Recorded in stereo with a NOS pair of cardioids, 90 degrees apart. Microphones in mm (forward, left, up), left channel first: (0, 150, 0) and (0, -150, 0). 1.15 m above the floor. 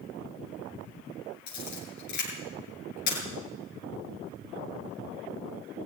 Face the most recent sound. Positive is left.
turn(degrees=70)